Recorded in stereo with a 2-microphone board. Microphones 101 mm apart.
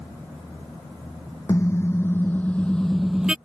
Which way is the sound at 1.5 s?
30° left (ahead or behind).